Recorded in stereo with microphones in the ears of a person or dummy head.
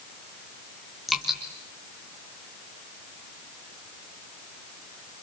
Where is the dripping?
5° left (ahead or behind), 3 m.